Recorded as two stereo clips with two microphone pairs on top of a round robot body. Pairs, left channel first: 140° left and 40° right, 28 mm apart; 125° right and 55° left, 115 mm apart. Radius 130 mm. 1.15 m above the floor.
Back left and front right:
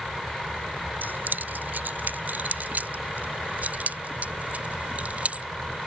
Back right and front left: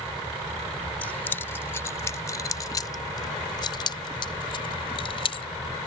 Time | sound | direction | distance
1.0 | keys jangling | 50° right | ?